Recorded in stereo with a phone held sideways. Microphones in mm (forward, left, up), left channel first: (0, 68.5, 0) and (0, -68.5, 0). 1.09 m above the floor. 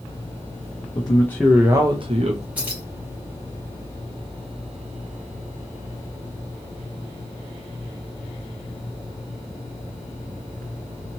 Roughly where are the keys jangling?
Centre.